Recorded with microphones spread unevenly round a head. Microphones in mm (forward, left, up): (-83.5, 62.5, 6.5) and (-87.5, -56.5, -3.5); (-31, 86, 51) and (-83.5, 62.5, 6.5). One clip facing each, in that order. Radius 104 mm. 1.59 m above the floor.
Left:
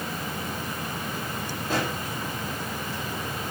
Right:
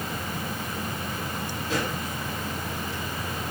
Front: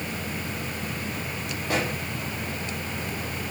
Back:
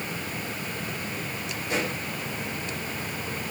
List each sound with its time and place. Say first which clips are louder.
1.6 s a pop: left 1 dB, front 2 dB; 20° left, 6.5 m